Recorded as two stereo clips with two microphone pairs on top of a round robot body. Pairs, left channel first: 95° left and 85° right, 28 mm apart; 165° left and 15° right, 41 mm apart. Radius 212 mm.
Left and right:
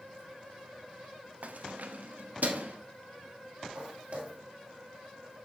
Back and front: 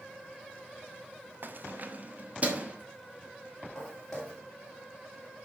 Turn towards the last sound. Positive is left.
turn(degrees=-115)